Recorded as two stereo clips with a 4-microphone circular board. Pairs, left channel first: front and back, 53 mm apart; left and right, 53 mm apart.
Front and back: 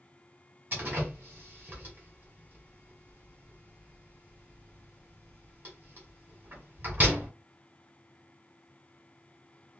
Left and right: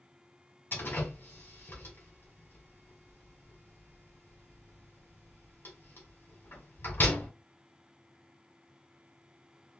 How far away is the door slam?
About 2 m.